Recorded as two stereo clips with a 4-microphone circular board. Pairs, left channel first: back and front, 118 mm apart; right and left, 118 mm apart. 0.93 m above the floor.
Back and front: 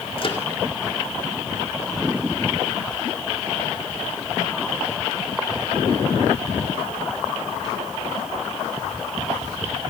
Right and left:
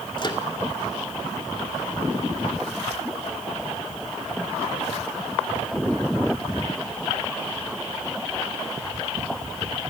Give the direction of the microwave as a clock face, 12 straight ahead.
5 o'clock.